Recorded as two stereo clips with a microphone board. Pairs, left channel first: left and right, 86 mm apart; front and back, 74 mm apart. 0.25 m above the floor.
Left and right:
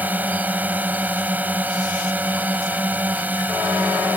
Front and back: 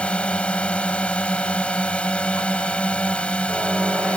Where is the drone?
50° right.